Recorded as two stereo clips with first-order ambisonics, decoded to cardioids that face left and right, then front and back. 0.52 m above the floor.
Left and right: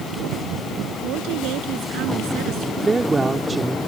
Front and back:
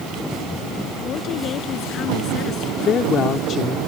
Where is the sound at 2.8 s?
25° right.